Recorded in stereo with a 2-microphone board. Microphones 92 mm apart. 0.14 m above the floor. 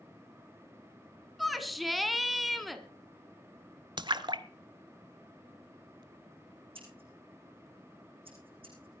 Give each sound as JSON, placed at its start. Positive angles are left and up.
{"t": 1.4, "sound": "a shout", "side_deg": 0, "distance_m": 1.3}
{"t": 4.0, "sound": "a splash", "side_deg": -55, "distance_m": 0.7}
{"t": 6.8, "sound": "scissors", "side_deg": -75, "distance_m": 9.5}